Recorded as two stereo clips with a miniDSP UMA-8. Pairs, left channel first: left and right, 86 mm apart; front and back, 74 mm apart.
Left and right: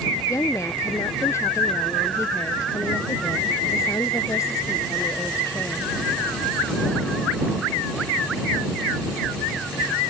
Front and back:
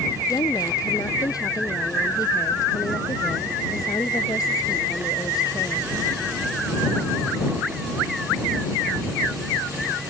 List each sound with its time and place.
0.3 s a woman speaking: 35° left